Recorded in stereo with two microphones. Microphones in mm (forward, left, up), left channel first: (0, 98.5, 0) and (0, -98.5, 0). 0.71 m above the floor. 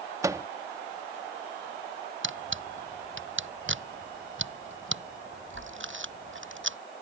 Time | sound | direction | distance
0.2 | a microwave | 15° right (ahead or behind) | ?
2.2 | a camera shutter | 80° right | ?